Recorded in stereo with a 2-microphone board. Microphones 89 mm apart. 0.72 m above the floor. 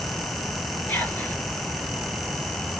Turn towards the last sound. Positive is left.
turn(degrees=25)  # may be behind; listen again after turning